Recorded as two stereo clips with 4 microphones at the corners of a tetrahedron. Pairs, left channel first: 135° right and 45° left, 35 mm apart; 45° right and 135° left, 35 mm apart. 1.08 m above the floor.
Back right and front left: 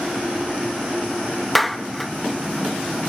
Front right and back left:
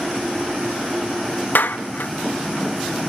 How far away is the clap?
About 0.9 m.